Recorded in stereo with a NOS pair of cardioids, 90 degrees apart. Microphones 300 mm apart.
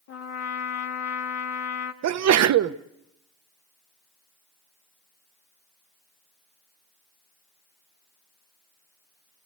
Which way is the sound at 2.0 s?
60° right.